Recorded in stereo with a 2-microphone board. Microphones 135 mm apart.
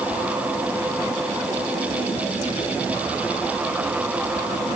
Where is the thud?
No thud in this recording.